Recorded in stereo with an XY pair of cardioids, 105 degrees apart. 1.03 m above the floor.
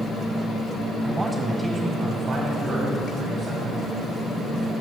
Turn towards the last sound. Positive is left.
turn(degrees=-70)